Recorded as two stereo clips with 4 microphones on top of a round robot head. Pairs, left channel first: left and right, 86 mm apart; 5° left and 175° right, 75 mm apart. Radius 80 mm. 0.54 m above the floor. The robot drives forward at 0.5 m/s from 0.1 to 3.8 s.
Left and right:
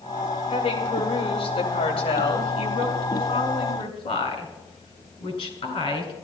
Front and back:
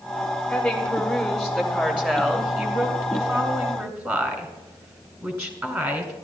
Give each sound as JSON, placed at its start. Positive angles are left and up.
{"t": 0.5, "sound": "a woman speaking", "azimuth_deg": 85, "distance_m": 2.5}